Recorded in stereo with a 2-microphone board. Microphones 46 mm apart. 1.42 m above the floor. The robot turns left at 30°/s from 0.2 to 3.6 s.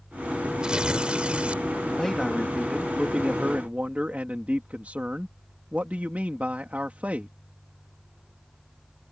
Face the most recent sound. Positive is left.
turn(degrees=-35)